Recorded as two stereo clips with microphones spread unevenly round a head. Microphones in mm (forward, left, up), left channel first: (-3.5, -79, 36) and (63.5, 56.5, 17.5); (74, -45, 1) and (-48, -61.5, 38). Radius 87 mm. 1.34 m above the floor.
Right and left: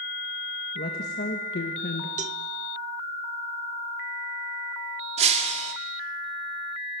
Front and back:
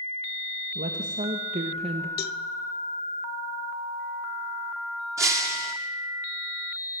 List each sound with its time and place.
0.8 s a woman speaking: 150° right, 2 m; by 2.1 s 125° right, 1.6 m
2.2 s a cowbell: 20° left, 0.7 m
5.2 s breaking glass: 120° left, 1.8 m